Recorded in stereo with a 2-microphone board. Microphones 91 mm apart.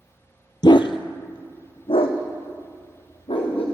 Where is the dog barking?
50° left (ahead or behind), 0.5 m; by 3.6 s 85° left, 2.5 m.